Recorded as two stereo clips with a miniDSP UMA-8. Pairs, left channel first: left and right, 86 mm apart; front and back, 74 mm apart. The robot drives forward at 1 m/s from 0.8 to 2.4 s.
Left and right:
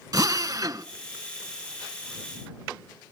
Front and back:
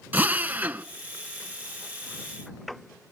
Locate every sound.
0.1 s a drill: 120° right, 0.6 m; by 0.8 s 125° right, 0.7 m